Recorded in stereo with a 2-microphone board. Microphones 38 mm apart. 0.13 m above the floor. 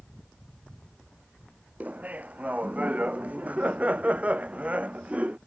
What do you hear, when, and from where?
1.8 s laughter: 45° right (ahead or behind); by 5.4 s 35° right (ahead or behind)